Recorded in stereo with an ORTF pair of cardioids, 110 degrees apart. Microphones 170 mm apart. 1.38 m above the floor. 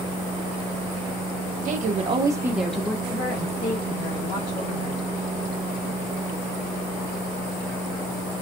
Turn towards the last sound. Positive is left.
turn(degrees=55)